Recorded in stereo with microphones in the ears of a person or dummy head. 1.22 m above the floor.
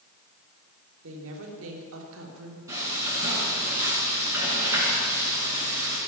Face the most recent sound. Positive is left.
turn(degrees=-15)  # may be behind; listen again after turning